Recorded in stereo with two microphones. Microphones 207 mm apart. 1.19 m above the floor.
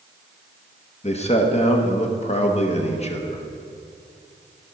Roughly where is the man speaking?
Left.